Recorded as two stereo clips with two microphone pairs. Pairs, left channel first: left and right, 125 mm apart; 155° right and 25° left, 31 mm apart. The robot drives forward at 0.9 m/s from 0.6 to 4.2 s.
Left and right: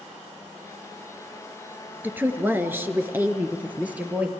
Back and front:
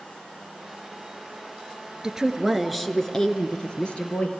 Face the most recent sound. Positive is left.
turn(degrees=-160)